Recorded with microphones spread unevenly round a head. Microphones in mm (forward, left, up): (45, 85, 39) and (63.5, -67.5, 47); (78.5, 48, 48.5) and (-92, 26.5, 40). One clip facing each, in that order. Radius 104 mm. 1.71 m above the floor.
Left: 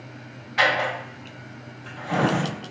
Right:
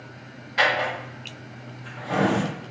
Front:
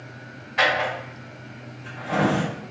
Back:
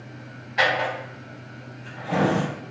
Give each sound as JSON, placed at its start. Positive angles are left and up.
{"t": 0.6, "sound": "a drawer", "azimuth_deg": -90, "distance_m": 1.5}